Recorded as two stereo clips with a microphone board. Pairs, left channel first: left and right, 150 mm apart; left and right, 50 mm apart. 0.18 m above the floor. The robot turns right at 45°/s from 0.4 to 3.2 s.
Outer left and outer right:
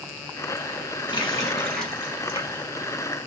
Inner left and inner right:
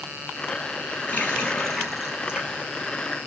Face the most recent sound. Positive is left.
turn(degrees=-125)